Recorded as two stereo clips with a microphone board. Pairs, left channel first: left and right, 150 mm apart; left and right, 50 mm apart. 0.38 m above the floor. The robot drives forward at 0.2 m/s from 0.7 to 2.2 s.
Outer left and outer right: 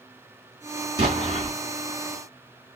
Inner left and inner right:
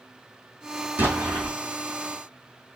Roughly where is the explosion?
Right.